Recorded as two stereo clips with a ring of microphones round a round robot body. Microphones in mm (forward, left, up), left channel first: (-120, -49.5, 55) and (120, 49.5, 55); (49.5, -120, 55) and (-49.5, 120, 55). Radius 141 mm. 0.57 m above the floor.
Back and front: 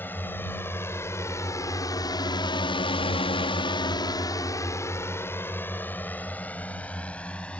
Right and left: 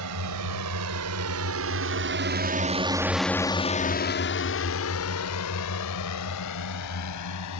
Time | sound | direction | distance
0.0 | a drone | 120° left | ?